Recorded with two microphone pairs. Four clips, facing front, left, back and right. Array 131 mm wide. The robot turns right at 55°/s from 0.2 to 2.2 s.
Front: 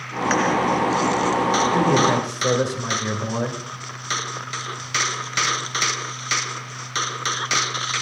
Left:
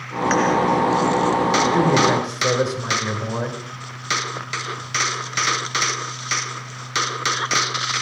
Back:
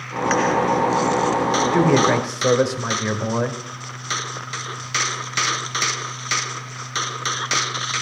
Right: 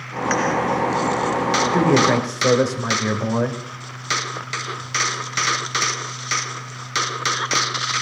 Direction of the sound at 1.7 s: 175° right.